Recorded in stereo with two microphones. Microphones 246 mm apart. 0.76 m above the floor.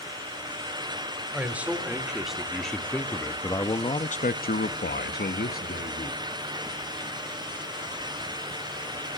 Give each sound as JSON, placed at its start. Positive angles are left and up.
{"t": 1.3, "sound": "a man speaking", "side_deg": -5, "distance_m": 2.5}